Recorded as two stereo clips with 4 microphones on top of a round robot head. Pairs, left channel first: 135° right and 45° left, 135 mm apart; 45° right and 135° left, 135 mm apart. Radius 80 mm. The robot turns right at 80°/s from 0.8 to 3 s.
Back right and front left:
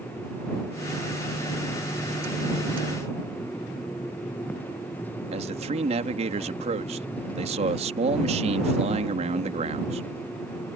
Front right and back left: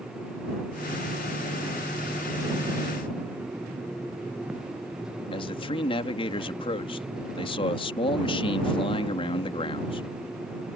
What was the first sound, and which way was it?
A man speaking, 5° left.